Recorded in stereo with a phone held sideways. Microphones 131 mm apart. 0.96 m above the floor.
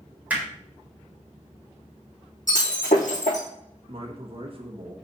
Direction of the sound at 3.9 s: 45° right (ahead or behind).